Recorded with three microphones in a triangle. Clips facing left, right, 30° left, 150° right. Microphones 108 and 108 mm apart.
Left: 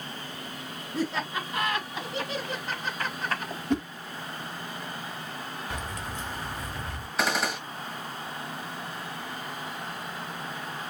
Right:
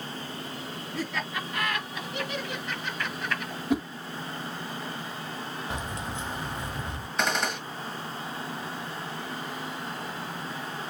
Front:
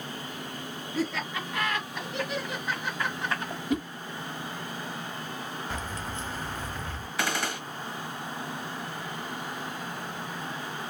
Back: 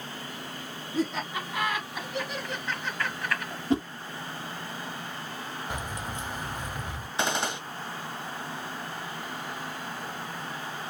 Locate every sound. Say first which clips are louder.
0.9 s laughter: left 4 dB, back 2 dB; 150° left, 2.0 m; by 3.6 s 65° left, 1.5 m
3.7 s a whoosh: right 1 dB, back 3 dB; 165° right, 0.8 m
5.7 s keys jangling: right 1 dB, even; 105° right, 1.0 m
7.2 s a gunshot: left 1 dB, back 2 dB; 175° left, 1.1 m